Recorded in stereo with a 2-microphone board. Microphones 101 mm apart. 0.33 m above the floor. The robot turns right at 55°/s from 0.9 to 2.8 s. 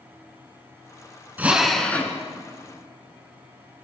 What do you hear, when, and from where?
1.4 s a drill: 20° right, 3.5 m; by 2.2 s 25° left, 3.5 m